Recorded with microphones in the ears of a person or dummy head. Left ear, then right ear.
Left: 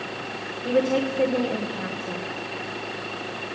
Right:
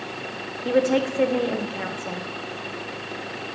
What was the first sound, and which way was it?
A woman speaking, 20° right (ahead or behind).